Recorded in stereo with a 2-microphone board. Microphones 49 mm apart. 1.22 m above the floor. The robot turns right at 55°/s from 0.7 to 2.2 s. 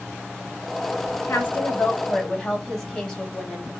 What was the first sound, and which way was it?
A woman speaking, 115° left.